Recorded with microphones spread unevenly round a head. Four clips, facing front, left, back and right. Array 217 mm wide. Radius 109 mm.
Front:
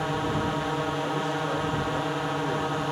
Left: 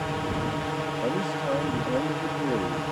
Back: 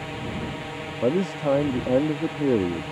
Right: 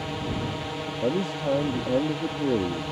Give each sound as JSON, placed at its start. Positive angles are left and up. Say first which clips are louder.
{"t": 0.0, "sound": "a drone", "louder": "left 2 dB, front 5 dB", "azimuth_deg": 25}
{"t": 1.0, "sound": "a man speaking", "louder": "right 4 dB, back 5 dB", "azimuth_deg": -165}